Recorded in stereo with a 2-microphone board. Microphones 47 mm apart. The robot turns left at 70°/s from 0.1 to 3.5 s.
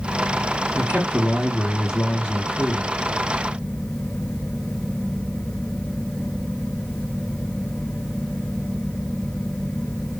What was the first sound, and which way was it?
A man speaking, 105° right.